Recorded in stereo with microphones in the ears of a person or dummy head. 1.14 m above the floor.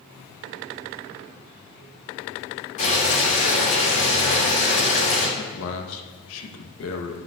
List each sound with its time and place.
2.8 s boiling: 40° left (ahead or behind), 3 m
5.4 s a man speaking: 75° left (ahead or behind), 0.9 m